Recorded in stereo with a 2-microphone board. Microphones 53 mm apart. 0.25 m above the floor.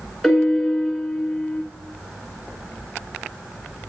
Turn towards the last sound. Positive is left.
turn(degrees=10)  # may be behind; listen again after turning